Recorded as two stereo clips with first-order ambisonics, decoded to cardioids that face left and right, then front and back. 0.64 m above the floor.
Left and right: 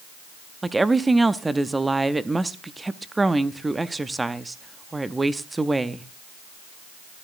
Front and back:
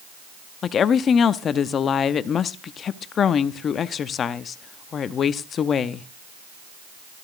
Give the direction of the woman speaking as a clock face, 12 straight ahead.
1 o'clock.